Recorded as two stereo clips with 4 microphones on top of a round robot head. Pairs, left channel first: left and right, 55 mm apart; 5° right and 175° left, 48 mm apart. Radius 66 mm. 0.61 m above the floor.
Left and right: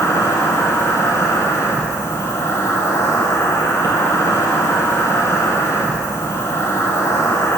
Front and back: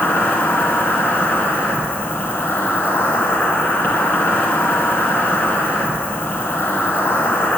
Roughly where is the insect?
Ahead left.